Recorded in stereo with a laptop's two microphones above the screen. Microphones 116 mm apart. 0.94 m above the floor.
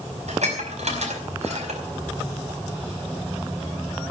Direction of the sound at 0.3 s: 75° right (ahead or behind).